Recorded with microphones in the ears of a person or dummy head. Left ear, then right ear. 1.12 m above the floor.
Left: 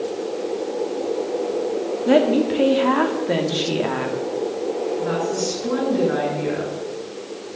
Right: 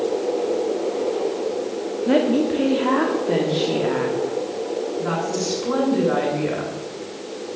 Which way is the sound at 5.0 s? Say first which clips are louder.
Left 1 dB; 20° right (ahead or behind).